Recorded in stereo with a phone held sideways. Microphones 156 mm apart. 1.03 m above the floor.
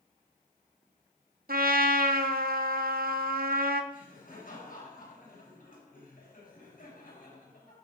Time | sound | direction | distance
1.5 | a trumpet | 85° right | 0.7 m
3.9 | laughter | 85° left | 5.5 m